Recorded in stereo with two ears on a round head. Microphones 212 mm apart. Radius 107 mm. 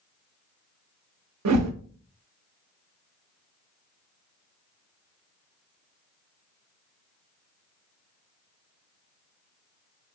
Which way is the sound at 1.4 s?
80° right.